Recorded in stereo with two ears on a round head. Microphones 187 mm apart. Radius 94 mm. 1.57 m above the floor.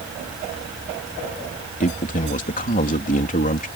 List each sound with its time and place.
1.8 s a man speaking: 40° left (ahead or behind)